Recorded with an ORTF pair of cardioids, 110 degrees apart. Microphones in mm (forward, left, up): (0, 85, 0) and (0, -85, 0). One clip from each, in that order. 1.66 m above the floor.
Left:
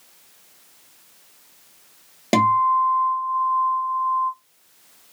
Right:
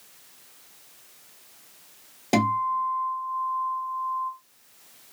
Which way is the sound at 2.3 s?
45° left.